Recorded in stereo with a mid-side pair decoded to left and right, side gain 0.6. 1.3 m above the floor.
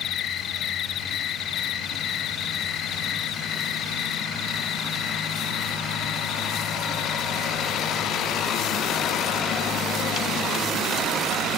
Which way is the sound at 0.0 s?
50° left.